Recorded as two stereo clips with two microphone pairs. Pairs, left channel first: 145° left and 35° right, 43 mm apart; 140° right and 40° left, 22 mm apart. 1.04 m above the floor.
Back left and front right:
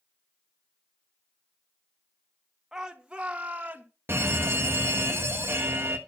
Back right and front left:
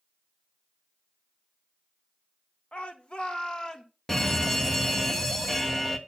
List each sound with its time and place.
2.7 s a shout: 110° right, 1.5 m; by 3.9 s 85° right, 2 m
4.1 s an alarm: 65° right, 1.3 m